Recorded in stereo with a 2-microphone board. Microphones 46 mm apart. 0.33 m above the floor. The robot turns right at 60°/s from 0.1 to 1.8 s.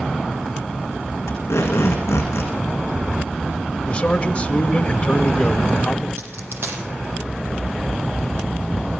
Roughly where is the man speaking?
Left.